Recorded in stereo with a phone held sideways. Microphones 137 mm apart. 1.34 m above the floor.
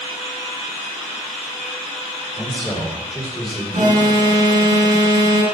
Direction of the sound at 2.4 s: 5° right (ahead or behind).